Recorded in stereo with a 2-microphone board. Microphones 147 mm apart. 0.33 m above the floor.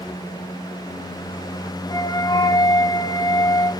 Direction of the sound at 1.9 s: 30° left (ahead or behind).